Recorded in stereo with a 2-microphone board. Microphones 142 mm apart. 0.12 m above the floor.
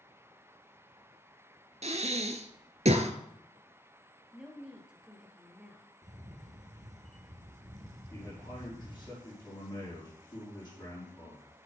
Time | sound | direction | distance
1.8 | breathing | 50° right (ahead or behind) | 0.9 m
4.3 | a woman speaking | 5° right (ahead or behind) | 2 m
6.0 | a camera shutter | 55° right (ahead or behind) | 1.6 m
8.1 | a man speaking | 25° left (ahead or behind) | 5 m